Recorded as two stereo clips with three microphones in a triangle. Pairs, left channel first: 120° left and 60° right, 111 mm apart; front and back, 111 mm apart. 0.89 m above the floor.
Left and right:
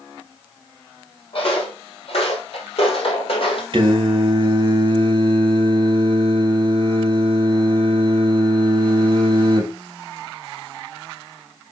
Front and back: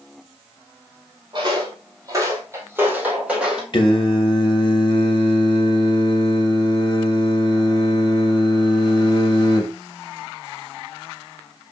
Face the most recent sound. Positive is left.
turn(degrees=-30)